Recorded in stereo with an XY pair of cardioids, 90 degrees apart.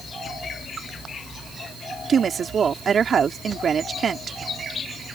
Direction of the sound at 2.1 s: 55° right.